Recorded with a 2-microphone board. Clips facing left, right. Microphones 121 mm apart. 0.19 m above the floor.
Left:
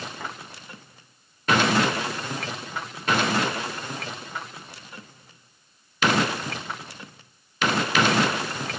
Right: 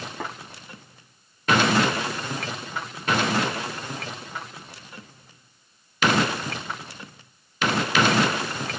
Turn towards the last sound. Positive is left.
turn(degrees=-85)